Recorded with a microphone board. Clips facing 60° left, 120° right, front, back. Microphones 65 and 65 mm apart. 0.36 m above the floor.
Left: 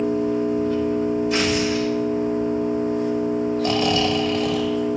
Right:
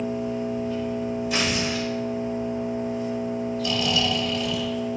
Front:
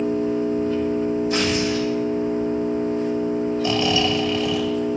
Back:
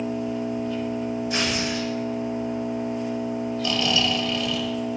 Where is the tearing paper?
30° right, 3 m.